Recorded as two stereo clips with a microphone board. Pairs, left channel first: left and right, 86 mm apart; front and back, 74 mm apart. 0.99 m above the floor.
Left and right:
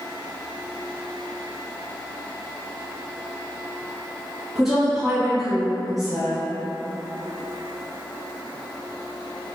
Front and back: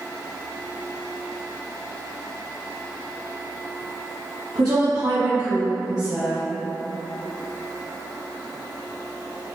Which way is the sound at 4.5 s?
175° right.